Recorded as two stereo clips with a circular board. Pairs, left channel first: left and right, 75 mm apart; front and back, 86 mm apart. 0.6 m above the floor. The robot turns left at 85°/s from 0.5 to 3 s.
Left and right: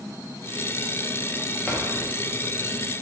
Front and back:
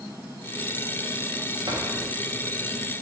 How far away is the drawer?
About 0.7 m.